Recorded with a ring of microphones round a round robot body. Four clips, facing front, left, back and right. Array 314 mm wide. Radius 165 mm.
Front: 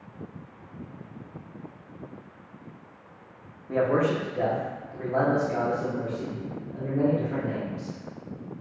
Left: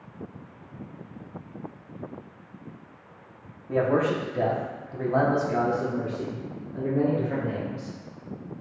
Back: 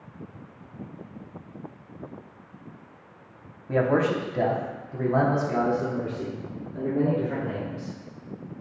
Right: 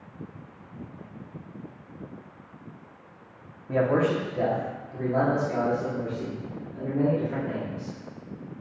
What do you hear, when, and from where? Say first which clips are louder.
3.7 s a man speaking: even, back 1 dB; 155° right, 0.9 m; by 8.0 s 125° left, 2.5 m